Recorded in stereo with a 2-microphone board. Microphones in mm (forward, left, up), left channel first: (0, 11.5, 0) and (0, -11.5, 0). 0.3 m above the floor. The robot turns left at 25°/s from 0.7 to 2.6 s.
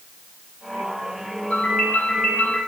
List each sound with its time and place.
1.5 s a ringtone: 80° left, 3 m; by 2.6 s 65° left (ahead or behind), 3 m